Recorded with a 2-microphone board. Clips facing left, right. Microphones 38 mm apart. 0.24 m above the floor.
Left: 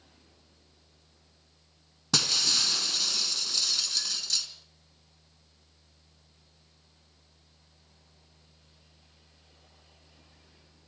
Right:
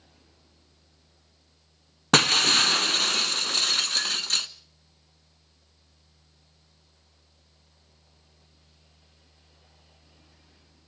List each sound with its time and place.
2.1 s breaking glass: 50° right (ahead or behind), 0.7 m